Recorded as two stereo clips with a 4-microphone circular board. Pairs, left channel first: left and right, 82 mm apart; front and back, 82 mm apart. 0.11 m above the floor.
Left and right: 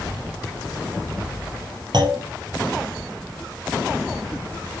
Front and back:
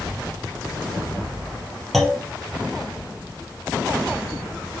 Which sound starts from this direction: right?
A clunk, at 1.9 s.